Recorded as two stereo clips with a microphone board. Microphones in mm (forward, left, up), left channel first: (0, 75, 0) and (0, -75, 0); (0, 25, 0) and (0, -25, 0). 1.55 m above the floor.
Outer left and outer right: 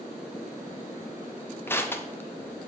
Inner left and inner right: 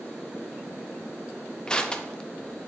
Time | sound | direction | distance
1.7 | crushing | 15° left (ahead or behind) | 0.5 m